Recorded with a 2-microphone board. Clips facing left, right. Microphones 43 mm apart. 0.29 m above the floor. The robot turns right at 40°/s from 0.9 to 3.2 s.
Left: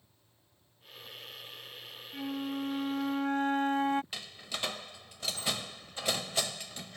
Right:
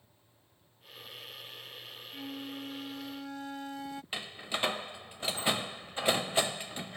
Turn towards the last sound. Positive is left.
turn(degrees=-25)  # may be behind; listen again after turning